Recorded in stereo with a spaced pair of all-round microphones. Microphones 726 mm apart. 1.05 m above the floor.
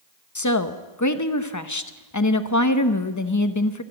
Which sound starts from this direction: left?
A woman speaking, at 0.3 s.